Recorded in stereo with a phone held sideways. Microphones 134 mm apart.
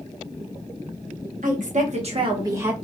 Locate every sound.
1.4 s a woman speaking: 70° right (ahead or behind), 1.1 m; by 2.8 s 10° right (ahead or behind), 0.9 m